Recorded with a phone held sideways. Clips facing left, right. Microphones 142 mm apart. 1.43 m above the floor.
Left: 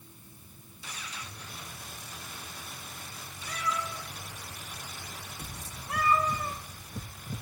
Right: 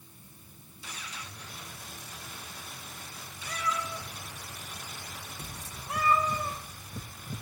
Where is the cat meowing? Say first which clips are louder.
Even; 5° right (ahead or behind), 2.0 m.